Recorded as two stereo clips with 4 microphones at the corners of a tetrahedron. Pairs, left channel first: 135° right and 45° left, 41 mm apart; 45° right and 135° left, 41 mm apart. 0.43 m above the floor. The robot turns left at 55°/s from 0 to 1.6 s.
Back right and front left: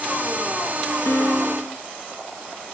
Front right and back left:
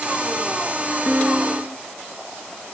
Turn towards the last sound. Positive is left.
turn(degrees=170)